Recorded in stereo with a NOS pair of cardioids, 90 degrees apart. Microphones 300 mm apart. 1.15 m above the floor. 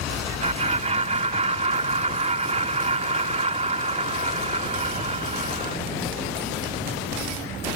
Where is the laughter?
20° right.